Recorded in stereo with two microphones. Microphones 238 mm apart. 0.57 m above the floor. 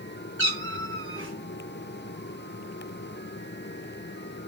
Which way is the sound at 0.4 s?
60° right (ahead or behind).